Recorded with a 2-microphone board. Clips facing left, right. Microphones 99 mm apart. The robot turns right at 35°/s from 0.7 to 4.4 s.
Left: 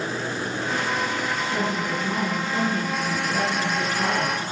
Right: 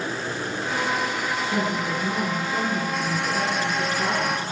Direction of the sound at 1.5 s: 45° right.